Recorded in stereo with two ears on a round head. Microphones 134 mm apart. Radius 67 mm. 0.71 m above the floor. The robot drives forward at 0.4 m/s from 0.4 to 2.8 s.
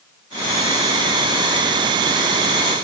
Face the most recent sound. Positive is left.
No sound to turn to.